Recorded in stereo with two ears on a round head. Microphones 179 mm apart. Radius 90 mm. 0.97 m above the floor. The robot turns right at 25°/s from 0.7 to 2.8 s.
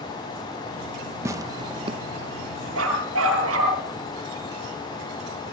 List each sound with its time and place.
1.2 s tearing paper: 15° right (ahead or behind), 0.8 m; by 2.0 s 30° right (ahead or behind), 0.8 m
2.8 s a dog barking: 85° right, 10 m